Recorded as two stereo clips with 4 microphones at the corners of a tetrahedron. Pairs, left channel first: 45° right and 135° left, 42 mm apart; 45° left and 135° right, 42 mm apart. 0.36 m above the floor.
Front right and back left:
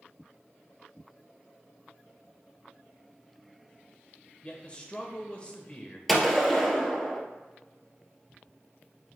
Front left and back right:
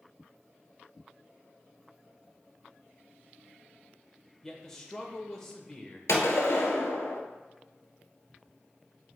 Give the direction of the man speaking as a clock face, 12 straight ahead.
1 o'clock.